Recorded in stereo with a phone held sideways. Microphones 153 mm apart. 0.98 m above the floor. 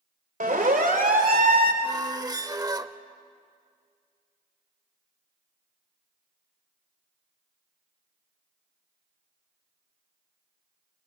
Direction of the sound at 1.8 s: 25° right (ahead or behind).